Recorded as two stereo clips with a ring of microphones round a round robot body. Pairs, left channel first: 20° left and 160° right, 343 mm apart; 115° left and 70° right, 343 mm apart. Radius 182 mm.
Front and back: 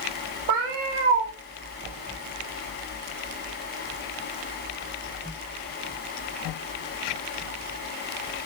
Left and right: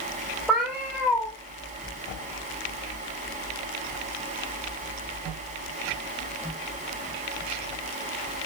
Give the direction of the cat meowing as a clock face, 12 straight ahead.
5 o'clock.